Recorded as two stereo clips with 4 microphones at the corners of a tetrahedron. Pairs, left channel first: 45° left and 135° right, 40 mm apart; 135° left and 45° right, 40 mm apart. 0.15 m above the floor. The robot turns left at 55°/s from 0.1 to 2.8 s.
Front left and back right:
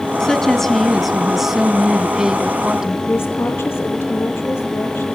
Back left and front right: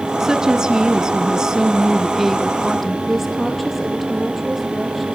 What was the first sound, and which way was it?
A woman speaking, 5° right.